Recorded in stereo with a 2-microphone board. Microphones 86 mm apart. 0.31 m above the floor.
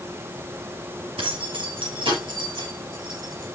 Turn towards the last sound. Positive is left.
turn(degrees=-55)  # may be behind; listen again after turning